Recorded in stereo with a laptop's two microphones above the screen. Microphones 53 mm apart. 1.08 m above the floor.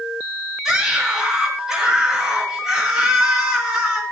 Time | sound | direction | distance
0.7 | a scream | 10° right (ahead or behind) | 8.5 m